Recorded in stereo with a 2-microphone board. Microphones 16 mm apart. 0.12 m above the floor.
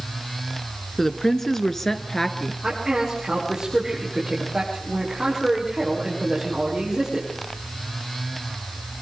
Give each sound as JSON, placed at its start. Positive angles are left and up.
{"t": 1.0, "sound": "a woman speaking", "side_deg": 30, "distance_m": 1.5}
{"t": 2.6, "sound": "a man speaking", "side_deg": -35, "distance_m": 7.5}